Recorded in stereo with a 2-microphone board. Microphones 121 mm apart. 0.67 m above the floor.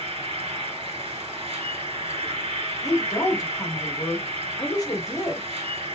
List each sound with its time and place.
0.0 s an insect: 60° right (ahead or behind), 1.3 m
2.8 s a woman speaking: 35° left (ahead or behind), 1.0 m